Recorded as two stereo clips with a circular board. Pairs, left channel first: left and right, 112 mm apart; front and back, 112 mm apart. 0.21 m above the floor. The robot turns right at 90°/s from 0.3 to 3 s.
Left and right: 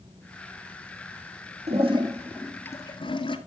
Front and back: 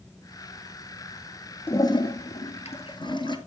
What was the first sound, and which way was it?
A toilet flushing, 70° right.